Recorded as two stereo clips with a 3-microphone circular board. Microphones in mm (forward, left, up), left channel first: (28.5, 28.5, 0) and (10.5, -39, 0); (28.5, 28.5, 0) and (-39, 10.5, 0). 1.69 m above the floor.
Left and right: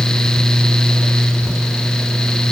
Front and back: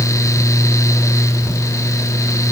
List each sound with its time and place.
Only background noise.